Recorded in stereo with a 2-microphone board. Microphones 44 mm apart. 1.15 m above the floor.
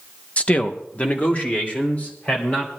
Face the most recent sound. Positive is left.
turn(degrees=35)  # may be behind; listen again after turning